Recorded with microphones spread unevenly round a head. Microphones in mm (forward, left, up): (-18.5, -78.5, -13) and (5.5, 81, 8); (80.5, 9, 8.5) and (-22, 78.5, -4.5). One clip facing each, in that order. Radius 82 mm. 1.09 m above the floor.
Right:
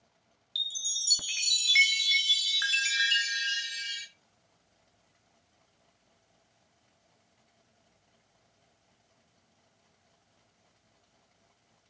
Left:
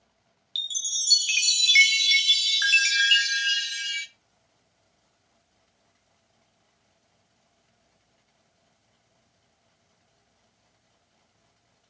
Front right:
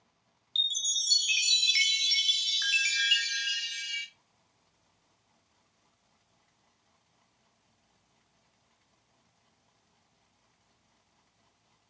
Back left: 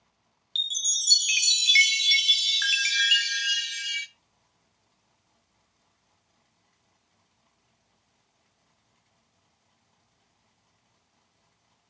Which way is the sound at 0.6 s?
125° left.